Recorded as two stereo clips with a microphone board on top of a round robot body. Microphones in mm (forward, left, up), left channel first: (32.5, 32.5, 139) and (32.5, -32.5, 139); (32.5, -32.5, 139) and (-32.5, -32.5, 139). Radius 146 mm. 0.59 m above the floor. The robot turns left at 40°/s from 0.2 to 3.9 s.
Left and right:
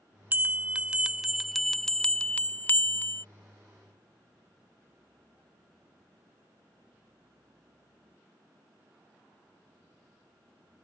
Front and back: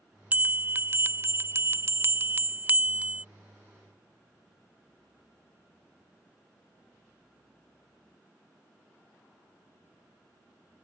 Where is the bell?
130° right; by 3.2 s 115° left.